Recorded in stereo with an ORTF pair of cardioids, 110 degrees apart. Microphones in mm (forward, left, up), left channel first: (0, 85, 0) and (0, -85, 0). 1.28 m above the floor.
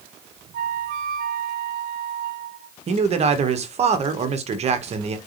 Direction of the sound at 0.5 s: 60° right.